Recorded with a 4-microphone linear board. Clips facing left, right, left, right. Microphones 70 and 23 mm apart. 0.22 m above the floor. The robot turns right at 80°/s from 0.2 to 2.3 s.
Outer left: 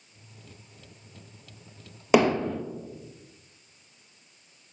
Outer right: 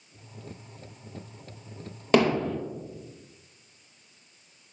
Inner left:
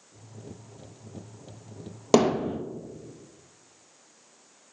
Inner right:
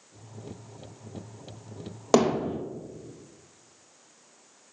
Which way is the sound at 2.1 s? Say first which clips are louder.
Outer left 1 dB, inner left 1 dB; 10° left (ahead or behind).